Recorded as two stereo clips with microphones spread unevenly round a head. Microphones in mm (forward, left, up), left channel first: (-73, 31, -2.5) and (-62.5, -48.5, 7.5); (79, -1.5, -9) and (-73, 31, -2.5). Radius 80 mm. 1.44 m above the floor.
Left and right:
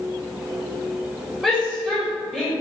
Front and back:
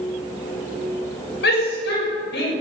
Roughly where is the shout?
Ahead.